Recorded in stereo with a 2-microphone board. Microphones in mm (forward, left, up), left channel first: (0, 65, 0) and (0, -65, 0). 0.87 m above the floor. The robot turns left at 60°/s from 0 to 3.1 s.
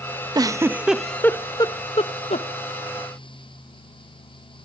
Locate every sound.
0.3 s a giggle: 30° right (ahead or behind), 0.6 m; by 2.5 s 55° left (ahead or behind), 0.6 m